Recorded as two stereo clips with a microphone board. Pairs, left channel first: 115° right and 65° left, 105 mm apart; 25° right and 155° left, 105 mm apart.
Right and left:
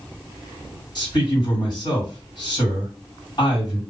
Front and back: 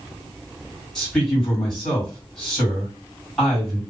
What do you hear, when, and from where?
0.9 s a man speaking: 105° right, 1.9 m